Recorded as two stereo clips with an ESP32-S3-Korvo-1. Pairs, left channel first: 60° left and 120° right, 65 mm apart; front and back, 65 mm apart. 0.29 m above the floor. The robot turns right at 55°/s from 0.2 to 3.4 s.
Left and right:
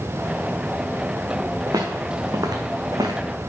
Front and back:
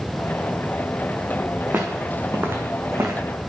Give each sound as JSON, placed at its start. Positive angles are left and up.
{"t": 1.7, "sound": "footsteps", "azimuth_deg": -120, "distance_m": 1.5}